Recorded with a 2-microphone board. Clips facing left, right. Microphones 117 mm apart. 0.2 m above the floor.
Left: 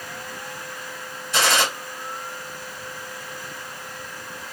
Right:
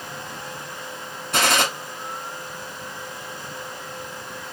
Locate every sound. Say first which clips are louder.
1.3 s a gunshot: even; 60° right (ahead or behind), 1.2 m